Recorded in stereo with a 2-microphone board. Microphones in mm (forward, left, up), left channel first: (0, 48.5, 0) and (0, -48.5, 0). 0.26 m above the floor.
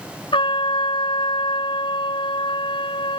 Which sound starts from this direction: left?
A trumpet, at 0.3 s.